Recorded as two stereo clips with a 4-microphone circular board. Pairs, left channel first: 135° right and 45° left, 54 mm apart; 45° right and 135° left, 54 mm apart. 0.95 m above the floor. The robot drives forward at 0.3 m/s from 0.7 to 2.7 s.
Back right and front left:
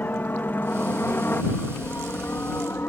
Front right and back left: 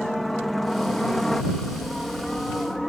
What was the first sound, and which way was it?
A helicopter, 135° right.